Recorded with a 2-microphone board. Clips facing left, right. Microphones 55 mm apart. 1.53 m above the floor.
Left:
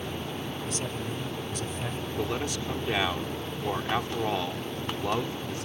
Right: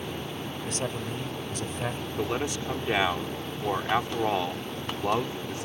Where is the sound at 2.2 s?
15° right (ahead or behind).